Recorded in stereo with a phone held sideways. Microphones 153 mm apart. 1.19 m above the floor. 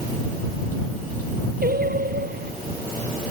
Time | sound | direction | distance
1.6 | singing | 80° right | ?